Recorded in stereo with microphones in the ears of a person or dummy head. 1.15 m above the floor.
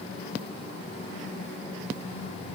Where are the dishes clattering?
No dishes clattering in this recording.